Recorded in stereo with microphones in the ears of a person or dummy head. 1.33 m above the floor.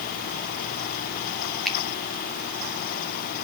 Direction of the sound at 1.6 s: Centre (ahead or behind).